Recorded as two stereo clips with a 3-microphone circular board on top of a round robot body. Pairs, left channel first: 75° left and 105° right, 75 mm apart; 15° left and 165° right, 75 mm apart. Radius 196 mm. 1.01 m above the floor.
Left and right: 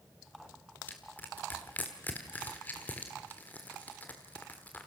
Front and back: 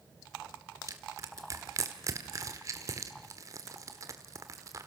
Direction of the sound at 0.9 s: 145° left.